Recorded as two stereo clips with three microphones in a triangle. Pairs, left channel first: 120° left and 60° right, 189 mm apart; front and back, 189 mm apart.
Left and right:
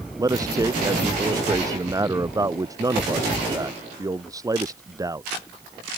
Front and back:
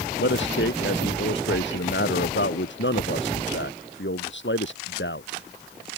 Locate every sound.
0.2 s a man speaking: 10° left